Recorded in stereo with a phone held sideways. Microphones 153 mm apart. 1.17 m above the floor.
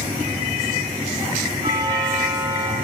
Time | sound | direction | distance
1.6 | a doorbell | 30° right (ahead or behind) | 8 m